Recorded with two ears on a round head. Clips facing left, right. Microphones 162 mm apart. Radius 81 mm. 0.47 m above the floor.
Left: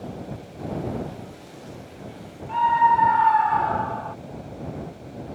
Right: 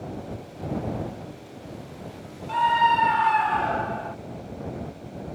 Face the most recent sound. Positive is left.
turn(degrees=-20)  # may be behind; listen again after turning